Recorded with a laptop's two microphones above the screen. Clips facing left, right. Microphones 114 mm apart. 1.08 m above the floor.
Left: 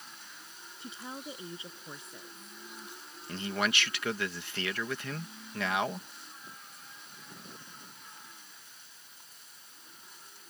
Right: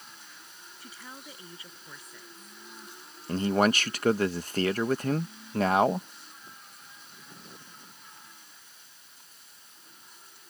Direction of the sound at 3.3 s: 40° right (ahead or behind).